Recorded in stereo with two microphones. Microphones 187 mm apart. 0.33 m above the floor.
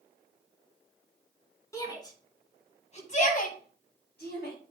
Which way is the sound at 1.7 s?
15° left (ahead or behind).